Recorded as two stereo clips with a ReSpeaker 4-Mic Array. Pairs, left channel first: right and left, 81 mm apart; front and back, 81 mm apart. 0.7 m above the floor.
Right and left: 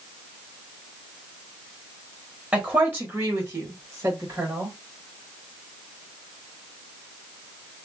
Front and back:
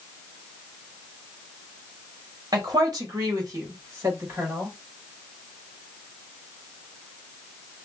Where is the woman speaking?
160° left, 1.2 m; by 4.8 s 130° left, 2 m.